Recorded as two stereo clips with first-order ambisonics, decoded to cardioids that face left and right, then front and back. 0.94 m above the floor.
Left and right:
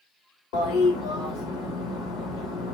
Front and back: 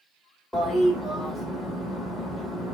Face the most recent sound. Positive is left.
turn(degrees=85)